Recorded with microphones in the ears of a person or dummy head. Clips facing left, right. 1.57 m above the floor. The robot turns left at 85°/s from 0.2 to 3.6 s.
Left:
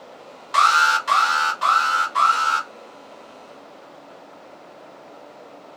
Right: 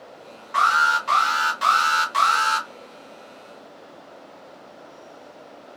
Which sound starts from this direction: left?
An alarm, at 0.5 s.